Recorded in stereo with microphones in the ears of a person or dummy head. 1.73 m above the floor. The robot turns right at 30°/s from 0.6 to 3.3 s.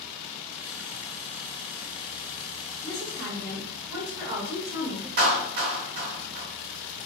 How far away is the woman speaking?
About 0.7 m.